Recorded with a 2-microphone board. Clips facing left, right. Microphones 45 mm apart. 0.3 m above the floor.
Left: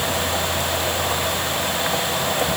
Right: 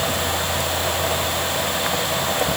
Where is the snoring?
I don't hear snoring.